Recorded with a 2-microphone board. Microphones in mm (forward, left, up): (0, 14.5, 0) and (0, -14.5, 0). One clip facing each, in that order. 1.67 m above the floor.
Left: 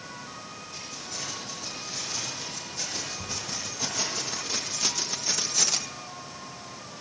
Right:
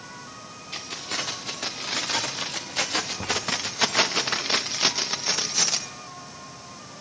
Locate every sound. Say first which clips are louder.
0.7 s keys jangling: right 9 dB; 70° right (ahead or behind), 4 m; by 5.9 s 10° right (ahead or behind), 1.8 m